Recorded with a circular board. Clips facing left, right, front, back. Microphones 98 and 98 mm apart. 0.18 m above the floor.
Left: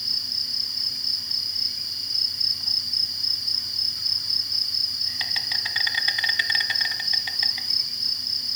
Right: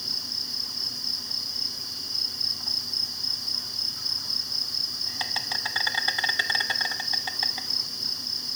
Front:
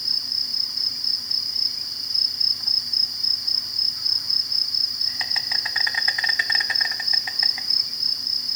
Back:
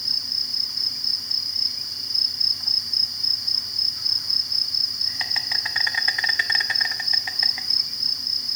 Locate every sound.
0.0 s an insect: 85° right, 1.0 m